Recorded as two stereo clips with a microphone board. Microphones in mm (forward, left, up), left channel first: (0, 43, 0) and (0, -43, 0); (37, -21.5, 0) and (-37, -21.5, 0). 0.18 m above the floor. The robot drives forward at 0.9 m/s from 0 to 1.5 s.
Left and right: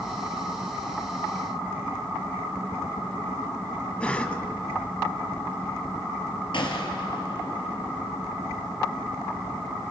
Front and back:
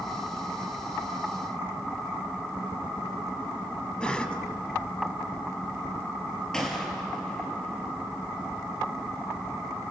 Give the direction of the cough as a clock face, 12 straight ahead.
10 o'clock.